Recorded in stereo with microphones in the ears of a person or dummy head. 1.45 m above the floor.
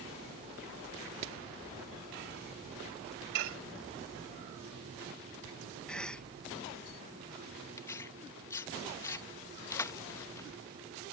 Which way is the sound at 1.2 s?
45° right (ahead or behind).